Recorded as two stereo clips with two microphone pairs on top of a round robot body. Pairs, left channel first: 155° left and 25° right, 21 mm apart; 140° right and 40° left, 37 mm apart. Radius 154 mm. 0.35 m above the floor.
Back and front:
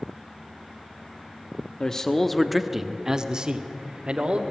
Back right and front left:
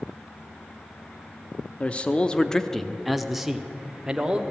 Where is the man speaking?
165° right, 1.4 m; by 4.4 s 25° right, 2.5 m.